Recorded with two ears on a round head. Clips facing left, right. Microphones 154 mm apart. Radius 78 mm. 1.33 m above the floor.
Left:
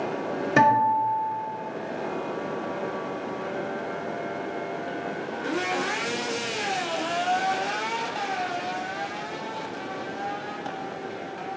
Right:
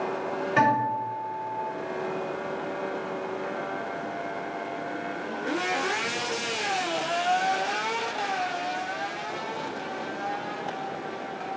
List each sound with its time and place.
0.6 s a guitar: 55° left (ahead or behind), 0.8 m